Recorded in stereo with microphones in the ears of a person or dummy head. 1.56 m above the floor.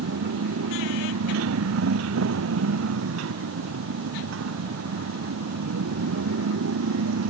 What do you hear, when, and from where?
0.0 s a motorcycle: 85° right; by 7.3 s 80° right